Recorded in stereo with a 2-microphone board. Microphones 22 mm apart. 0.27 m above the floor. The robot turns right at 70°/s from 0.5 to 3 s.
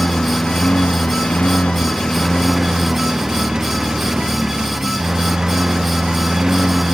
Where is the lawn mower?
40° left; by 7.0 s 145° right.